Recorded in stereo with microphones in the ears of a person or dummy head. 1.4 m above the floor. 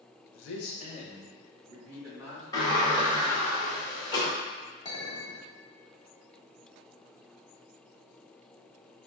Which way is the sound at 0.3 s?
80° left.